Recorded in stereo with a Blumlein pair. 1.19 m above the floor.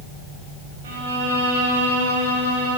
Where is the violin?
55° right, 1.9 m.